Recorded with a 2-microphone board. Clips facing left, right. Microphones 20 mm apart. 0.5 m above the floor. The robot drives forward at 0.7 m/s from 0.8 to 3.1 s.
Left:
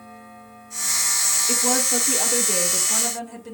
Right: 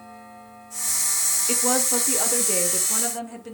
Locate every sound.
1.5 s a woman speaking: 20° right (ahead or behind), 1.2 m; by 3.5 s 15° right (ahead or behind), 2.0 m